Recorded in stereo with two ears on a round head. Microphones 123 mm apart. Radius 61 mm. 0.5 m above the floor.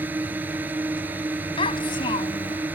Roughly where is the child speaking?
Left.